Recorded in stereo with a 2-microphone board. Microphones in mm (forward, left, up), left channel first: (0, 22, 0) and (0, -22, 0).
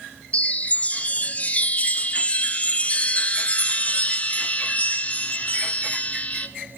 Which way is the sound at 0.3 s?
30° left (ahead or behind).